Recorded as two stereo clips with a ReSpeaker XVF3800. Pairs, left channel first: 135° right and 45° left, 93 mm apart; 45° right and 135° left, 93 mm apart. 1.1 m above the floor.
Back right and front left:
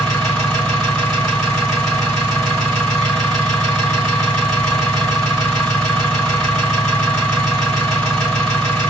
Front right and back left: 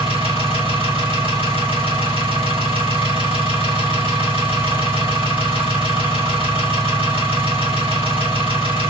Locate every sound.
0.0 s an engine running: 145° left, 2.0 m